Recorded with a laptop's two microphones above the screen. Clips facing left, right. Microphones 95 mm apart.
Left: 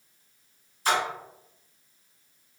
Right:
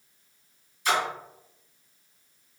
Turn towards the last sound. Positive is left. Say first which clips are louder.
# even
turn(degrees=35)  # may be behind; listen again after turning